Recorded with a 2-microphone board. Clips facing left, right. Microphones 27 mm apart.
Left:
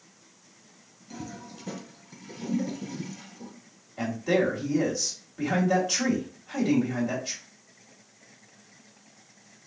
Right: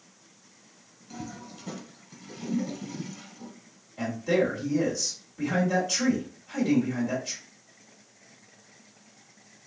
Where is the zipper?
No zipper in this recording.